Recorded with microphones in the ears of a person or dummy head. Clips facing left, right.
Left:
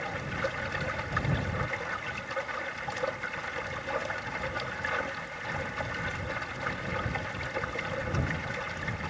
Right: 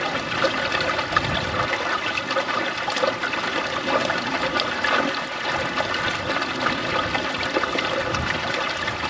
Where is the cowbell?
No cowbell in this recording.